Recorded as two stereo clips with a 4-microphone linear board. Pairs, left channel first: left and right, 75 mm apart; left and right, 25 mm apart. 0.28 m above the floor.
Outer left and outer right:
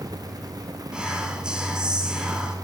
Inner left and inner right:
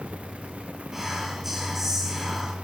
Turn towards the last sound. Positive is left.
turn(degrees=-10)  # may be behind; listen again after turning